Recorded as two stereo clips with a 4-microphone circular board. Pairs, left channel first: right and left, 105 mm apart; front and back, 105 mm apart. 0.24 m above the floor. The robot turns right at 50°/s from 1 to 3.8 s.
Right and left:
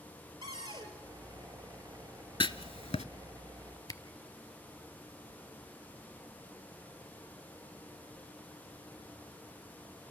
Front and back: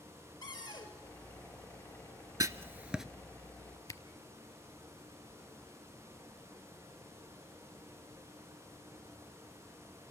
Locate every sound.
0.4 s a cupboard door: 55° left, 3.5 m
2.4 s writing: 125° right, 0.5 m; by 3.0 s 95° right, 0.5 m
3.9 s a camera shutter: 50° right, 0.7 m